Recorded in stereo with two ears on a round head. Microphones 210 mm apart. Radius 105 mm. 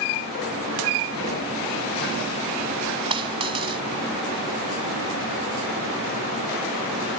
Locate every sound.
3.1 s a dropped coin: 20° right (ahead or behind)